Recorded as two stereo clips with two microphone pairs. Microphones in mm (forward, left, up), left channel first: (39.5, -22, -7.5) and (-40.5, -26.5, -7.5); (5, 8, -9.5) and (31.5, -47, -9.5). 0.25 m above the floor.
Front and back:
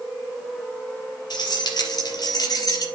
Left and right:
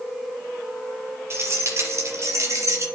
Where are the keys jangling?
20° right, 5 m; by 2.9 s 30° right, 4 m.